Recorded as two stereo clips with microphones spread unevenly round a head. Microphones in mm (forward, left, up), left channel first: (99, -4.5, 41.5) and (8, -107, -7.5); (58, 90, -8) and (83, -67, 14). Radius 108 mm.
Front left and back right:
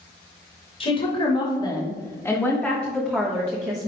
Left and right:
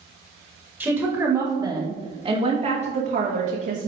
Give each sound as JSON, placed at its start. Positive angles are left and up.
{"t": 0.8, "sound": "a woman speaking", "azimuth_deg": 0, "distance_m": 2.0}